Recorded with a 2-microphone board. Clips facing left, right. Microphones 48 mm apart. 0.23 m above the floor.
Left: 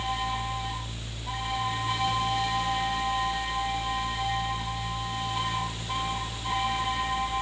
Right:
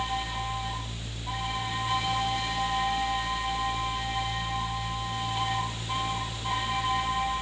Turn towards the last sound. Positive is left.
No sound to turn to.